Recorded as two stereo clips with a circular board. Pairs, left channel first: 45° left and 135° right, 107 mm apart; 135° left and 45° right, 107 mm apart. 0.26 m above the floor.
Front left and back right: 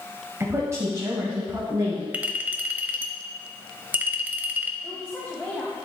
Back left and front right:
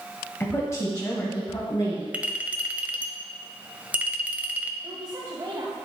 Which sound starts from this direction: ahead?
A woman speaking, at 4.8 s.